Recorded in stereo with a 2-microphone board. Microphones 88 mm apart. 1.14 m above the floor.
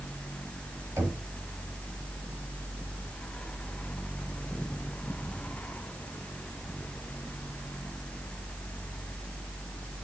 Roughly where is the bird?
I don't hear a bird.